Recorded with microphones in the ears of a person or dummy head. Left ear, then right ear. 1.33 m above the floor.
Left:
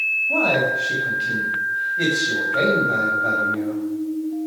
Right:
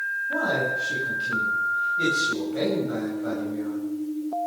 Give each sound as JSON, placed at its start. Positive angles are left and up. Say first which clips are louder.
{"t": 0.3, "sound": "a man speaking", "louder": "left 3 dB", "side_deg": 15, "distance_m": 8.0}